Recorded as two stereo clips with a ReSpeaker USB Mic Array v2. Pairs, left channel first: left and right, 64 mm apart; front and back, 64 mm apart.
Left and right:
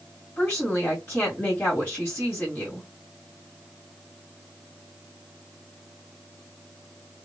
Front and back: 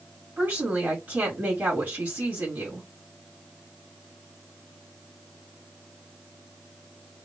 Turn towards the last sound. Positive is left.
turn(degrees=135)